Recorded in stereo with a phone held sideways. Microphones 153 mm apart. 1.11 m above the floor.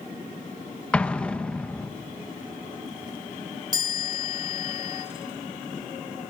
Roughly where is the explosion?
Centre.